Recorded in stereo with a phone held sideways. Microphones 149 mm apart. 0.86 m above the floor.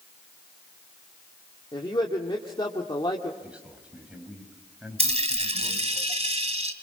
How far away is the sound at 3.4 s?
About 4.5 m.